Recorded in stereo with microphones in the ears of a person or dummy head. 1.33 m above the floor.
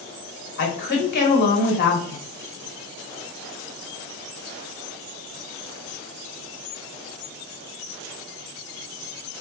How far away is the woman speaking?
About 1.1 m.